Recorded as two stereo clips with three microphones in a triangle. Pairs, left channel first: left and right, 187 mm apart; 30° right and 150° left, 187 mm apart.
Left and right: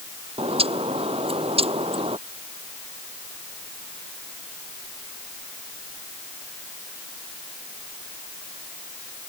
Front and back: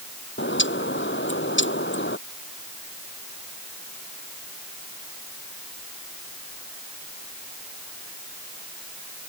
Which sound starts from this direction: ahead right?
A bird, at 0.4 s.